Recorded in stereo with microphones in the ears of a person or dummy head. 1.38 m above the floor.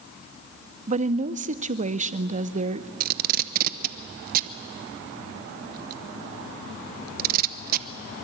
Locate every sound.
0.9 s a woman speaking: 35° right (ahead or behind), 0.6 m
3.0 s tape being pulled: 50° right (ahead or behind), 1.0 m